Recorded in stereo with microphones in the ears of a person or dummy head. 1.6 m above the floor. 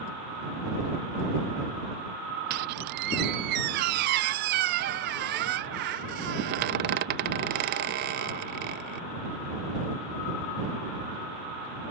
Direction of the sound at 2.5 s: 45° right (ahead or behind).